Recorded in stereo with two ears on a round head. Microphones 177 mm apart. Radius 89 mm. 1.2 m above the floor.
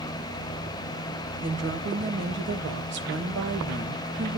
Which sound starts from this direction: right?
A woman speaking, at 1.4 s.